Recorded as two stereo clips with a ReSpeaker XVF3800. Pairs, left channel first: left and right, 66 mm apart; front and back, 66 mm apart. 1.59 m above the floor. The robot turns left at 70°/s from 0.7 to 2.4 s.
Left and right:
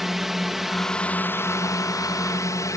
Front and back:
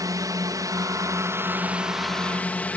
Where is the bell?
I don't hear a bell.